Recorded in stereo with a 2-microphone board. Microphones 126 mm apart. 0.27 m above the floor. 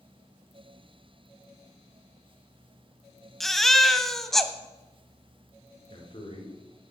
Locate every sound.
3.4 s a baby crying: centre (ahead or behind), 0.9 m
5.9 s a man speaking: 45° left (ahead or behind), 4.5 m